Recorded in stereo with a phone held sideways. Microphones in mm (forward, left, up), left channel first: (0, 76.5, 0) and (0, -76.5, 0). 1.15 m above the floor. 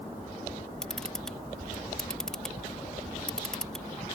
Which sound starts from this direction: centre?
A camera shutter, at 0.8 s.